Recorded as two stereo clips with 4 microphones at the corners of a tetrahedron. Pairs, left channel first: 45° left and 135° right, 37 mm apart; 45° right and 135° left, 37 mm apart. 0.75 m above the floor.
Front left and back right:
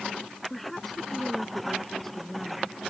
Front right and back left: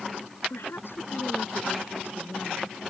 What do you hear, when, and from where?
0.5 s a woman speaking: 45° right; by 2.8 s 35° right